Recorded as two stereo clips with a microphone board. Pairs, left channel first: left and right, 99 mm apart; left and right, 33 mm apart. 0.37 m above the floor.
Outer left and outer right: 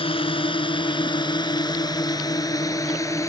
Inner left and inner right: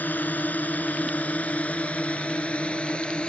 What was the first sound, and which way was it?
A drone, 65° left (ahead or behind).